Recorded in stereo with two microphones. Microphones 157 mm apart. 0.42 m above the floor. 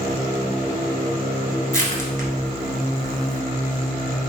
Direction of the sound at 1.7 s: 65° right (ahead or behind).